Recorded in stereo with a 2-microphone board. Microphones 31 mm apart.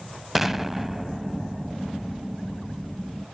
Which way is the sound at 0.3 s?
10° right (ahead or behind).